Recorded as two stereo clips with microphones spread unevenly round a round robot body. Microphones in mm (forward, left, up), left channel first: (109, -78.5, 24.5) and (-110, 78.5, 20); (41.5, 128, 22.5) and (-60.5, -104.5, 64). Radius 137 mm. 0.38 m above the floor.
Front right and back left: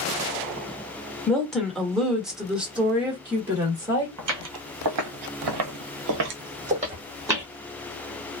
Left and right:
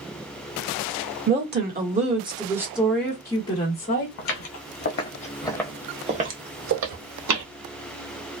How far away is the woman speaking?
About 1.3 m.